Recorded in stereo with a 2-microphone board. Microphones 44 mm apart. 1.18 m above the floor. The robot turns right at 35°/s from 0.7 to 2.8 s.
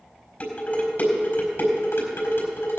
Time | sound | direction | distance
0.4 | dishes clattering | 40° left (ahead or behind) | 4.5 m